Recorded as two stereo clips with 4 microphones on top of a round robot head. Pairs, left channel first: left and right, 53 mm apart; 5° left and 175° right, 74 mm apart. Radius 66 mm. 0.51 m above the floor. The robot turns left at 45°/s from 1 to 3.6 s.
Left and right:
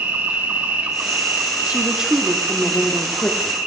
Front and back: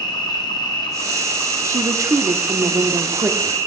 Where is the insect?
35° right, 1.4 m; by 3.7 s 150° right, 1.4 m.